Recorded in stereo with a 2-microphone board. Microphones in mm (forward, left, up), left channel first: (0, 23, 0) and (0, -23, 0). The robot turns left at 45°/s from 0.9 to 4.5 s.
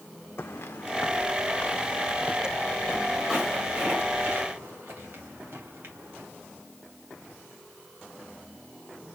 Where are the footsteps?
75° left (ahead or behind), 0.5 m; by 6.3 s 50° right (ahead or behind), 3.5 m.